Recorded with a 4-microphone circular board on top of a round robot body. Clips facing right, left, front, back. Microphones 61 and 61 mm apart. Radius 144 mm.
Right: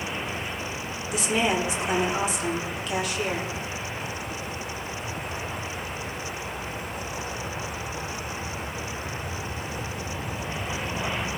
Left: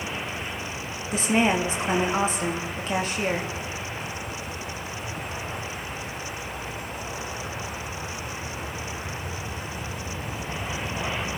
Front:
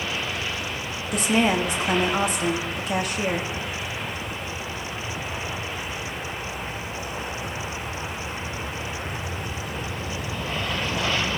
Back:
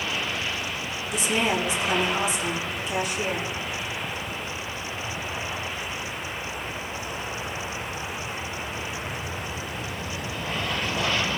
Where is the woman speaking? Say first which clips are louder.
Left 2 dB, front 4 dB; 35° left, 3 m.